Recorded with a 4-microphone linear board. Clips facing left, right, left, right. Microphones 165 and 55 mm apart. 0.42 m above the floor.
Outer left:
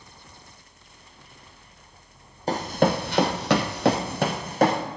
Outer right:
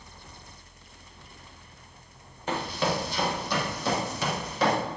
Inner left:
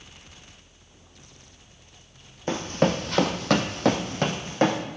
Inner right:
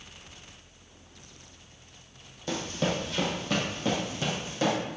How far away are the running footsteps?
About 1.3 m.